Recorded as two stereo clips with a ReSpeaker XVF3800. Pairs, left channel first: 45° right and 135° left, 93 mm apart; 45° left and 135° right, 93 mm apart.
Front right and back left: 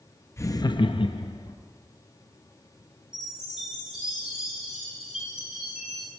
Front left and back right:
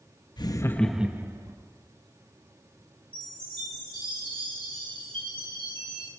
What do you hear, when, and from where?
0.4 s laughter: 15° left, 0.9 m; by 1.6 s 85° right, 1.2 m
3.1 s a chime: 140° right, 6 m